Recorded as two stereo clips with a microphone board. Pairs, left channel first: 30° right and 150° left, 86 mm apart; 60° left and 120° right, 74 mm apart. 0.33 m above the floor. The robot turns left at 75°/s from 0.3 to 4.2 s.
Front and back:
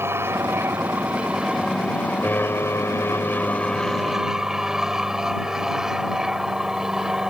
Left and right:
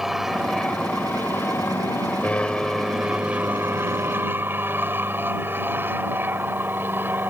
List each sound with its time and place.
0.0 s an aircraft: 160° left; by 7.3 s 135° right